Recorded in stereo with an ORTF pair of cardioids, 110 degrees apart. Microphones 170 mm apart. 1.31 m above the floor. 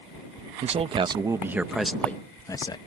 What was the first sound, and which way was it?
A man speaking, 40° right.